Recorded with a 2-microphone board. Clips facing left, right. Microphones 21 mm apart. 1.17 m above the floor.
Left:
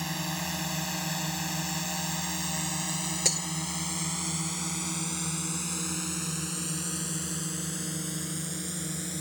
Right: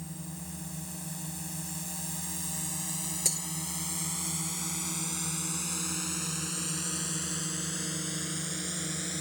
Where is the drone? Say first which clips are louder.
Left 10 dB; 65° left (ahead or behind); by 9.2 s 10° right (ahead or behind).